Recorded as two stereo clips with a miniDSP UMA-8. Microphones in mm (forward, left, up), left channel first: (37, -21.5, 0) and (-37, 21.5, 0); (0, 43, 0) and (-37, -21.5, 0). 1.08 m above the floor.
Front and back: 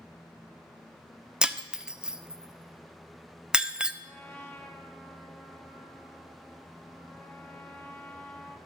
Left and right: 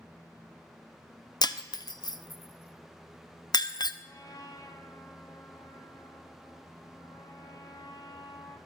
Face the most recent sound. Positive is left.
turn(degrees=35)